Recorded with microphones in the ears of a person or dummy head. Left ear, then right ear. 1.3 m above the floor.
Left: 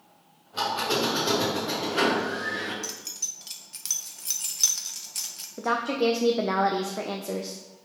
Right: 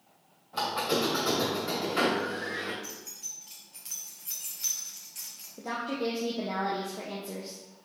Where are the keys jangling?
35° left (ahead or behind), 0.6 m.